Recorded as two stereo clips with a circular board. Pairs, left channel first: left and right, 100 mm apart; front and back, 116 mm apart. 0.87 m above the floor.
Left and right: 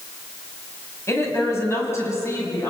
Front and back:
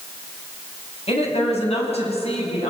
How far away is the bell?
No bell in this recording.